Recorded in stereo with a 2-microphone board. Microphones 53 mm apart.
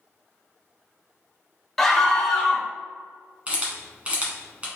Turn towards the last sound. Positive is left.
turn(degrees=-25)  # may be behind; listen again after turning